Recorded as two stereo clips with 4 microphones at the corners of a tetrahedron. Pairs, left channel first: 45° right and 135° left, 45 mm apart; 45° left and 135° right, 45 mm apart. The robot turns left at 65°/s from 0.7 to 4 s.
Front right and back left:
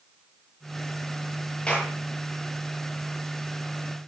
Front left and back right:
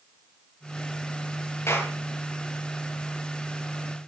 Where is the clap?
25° left, 8 m; by 1.9 s 5° left, 8 m.